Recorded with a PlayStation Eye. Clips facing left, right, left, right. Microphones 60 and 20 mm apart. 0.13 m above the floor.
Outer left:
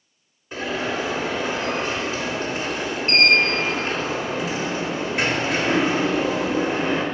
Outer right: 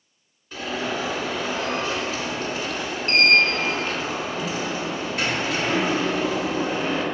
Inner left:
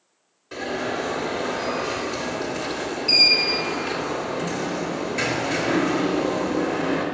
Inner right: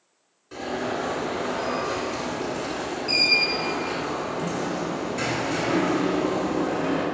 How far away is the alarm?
About 1.7 m.